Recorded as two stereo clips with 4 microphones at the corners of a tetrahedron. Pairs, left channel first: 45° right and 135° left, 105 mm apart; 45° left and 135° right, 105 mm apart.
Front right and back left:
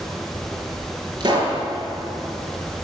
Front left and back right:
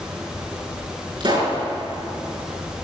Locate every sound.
1.2 s a pop: 175° right, 5 m